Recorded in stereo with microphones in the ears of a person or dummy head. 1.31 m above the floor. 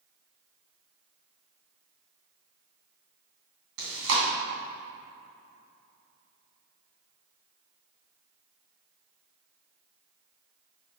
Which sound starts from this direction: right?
Chewing, at 3.8 s.